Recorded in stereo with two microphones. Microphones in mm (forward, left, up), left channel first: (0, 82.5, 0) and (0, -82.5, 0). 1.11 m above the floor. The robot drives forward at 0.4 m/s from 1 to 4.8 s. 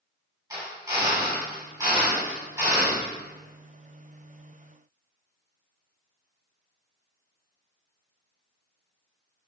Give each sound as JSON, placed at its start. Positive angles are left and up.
{"t": 0.5, "sound": "a drill", "side_deg": -20, "distance_m": 6.0}